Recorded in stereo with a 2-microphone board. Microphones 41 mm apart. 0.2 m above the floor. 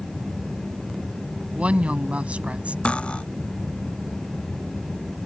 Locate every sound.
1.6 s a woman speaking: 35° right (ahead or behind)
2.9 s cutlery clinking: 30° left (ahead or behind)